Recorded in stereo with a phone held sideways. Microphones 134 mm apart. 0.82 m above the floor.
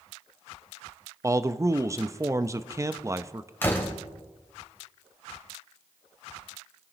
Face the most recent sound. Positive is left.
turn(degrees=15)  # may be behind; listen again after turning